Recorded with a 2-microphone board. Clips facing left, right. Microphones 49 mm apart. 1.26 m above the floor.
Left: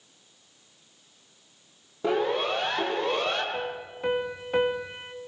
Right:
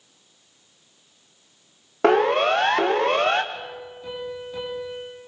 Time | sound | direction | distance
2.0 | a siren | 70° right (ahead or behind) | 2.5 m
3.5 | a piano | 55° left (ahead or behind) | 3.5 m